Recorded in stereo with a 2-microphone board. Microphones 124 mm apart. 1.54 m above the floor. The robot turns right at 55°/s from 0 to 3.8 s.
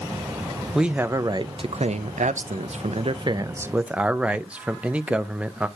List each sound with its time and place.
0.7 s a man speaking: straight behind, 0.6 m; by 5.7 s 10° right, 0.6 m